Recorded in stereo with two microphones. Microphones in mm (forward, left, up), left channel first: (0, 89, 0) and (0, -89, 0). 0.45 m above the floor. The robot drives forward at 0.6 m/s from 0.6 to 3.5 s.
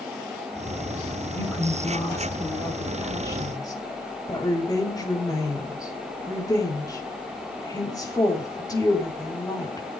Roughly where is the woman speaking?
Centre.